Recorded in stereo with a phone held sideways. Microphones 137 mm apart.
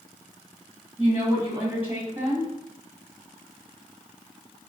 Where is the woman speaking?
15° right (ahead or behind), 1.5 m.